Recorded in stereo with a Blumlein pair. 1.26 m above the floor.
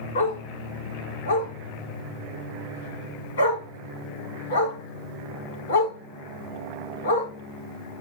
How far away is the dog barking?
About 3.5 m.